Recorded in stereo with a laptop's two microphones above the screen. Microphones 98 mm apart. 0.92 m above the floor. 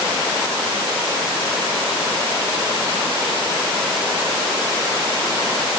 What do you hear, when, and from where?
Only background noise.